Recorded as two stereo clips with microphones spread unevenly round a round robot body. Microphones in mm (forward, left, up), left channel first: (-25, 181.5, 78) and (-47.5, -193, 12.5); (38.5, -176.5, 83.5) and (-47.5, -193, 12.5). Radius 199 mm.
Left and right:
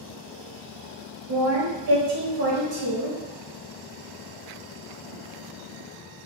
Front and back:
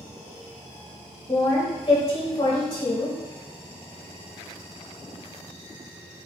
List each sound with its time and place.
1.3 s a woman speaking: 75° right, 0.9 m